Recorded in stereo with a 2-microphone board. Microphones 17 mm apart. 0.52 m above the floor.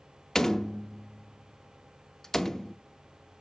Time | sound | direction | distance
0.3 | a door slam | 30° left (ahead or behind) | 0.6 m